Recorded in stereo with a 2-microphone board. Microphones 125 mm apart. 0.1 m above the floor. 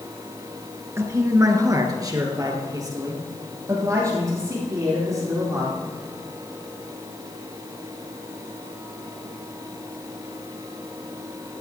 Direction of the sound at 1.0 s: 25° right (ahead or behind).